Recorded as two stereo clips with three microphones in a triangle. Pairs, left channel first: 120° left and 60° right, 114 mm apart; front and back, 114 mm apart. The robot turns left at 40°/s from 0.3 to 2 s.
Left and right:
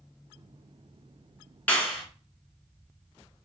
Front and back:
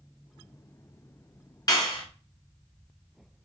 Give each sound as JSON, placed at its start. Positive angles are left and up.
{"t": 1.7, "sound": "a clap", "azimuth_deg": 45, "distance_m": 1.4}